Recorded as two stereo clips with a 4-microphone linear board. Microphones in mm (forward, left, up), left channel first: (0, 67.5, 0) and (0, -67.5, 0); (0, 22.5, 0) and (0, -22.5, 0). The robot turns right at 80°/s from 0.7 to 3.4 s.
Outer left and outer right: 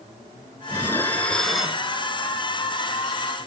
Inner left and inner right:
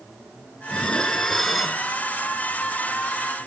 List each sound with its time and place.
0.7 s dishes clattering: 20° left (ahead or behind), 0.8 m; by 1.8 s 10° right (ahead or behind), 0.8 m